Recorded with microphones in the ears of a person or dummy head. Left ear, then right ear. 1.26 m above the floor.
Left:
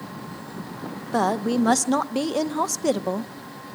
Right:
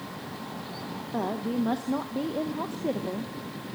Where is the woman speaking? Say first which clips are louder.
Left 9 dB; 75° left (ahead or behind), 0.9 m.